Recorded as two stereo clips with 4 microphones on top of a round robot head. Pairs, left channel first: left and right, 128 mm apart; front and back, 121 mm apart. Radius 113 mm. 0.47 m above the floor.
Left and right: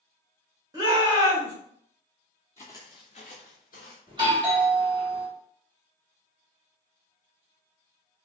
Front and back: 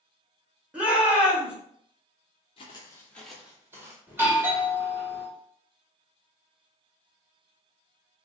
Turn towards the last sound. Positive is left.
turn(degrees=-115)